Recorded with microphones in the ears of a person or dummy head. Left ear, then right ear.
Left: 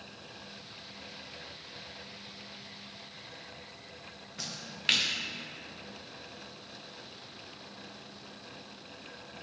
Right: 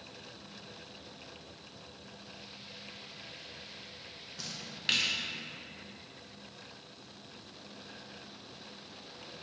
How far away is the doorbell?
I don't hear a doorbell.